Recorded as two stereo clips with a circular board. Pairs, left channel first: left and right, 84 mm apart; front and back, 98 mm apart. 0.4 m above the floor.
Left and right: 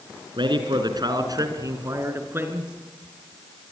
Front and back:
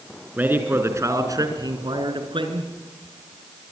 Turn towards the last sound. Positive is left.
turn(degrees=-155)